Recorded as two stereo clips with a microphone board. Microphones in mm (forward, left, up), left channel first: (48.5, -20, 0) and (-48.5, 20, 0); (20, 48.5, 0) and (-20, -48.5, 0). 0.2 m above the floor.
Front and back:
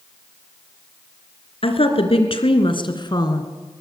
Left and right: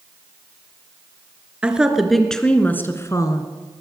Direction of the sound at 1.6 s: 35° right.